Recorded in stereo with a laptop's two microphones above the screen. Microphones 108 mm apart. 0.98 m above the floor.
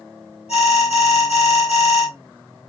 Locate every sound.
0.5 s an alarm: 90° left, 2.0 m